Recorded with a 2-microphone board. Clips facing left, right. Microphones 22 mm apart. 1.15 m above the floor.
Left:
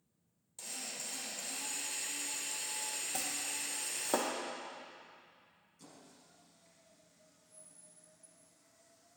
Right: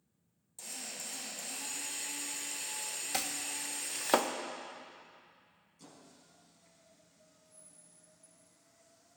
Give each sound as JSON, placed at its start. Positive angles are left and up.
{"t": 0.6, "sound": "a drill", "side_deg": 15, "distance_m": 4.5}
{"t": 3.1, "sound": "chopping", "side_deg": -70, "distance_m": 0.9}
{"t": 5.8, "sound": "a squeak", "side_deg": 0, "distance_m": 3.5}